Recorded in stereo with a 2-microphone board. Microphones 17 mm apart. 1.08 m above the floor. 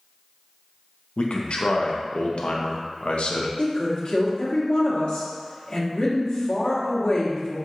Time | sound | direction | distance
1.2 | a man speaking | 85° left | 0.6 m
3.6 | a woman speaking | 60° left (ahead or behind) | 1.3 m